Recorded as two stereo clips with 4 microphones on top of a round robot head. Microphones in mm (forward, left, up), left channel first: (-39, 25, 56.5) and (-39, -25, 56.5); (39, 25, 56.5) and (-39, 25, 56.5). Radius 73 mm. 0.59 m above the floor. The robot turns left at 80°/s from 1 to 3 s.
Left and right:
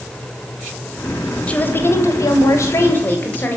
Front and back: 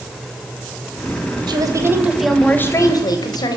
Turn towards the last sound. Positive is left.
turn(degrees=35)